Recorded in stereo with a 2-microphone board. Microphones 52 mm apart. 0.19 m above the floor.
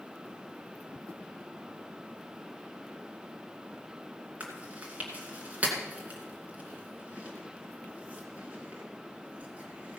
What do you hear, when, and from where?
4.4 s chewing: 30° right (ahead or behind), 2.5 m